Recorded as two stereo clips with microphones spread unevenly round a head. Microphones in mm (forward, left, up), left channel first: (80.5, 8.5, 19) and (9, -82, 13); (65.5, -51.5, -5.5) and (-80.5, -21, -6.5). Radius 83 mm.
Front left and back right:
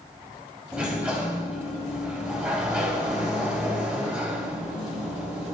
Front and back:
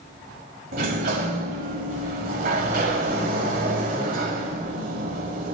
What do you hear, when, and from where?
0.7 s a sliding door: 150° left, 2 m